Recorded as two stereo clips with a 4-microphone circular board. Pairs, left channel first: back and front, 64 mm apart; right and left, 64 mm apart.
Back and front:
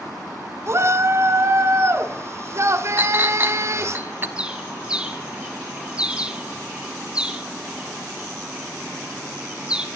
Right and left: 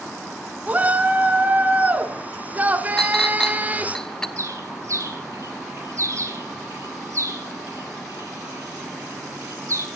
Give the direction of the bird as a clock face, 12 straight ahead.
10 o'clock.